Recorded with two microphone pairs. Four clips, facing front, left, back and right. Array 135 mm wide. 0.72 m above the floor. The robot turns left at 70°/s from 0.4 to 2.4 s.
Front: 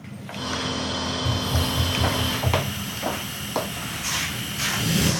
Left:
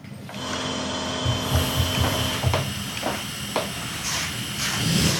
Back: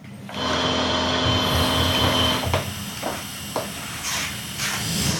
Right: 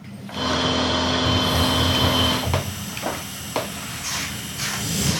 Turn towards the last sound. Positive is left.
turn(degrees=50)